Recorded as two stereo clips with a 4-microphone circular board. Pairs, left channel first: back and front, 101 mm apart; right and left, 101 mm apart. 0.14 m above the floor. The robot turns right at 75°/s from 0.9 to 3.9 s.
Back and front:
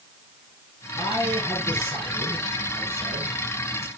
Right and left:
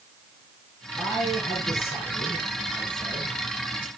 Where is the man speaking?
155° right, 4.5 m; by 3.9 s 65° left, 4.5 m.